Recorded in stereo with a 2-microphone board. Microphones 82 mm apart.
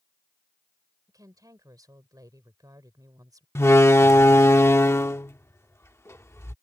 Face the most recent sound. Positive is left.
turn(degrees=35)  # may be behind; listen again after turning